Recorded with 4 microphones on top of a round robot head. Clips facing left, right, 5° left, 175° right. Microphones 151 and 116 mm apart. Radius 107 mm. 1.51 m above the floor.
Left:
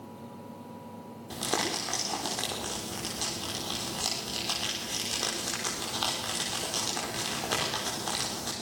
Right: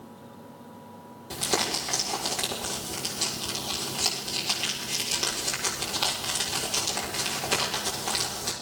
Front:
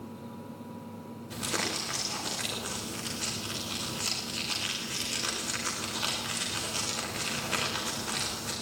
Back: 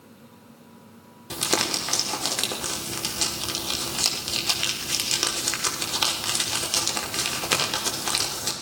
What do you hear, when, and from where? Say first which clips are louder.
1.3 s crumpling: right 2 dB, back 7 dB; 170° right, 6 m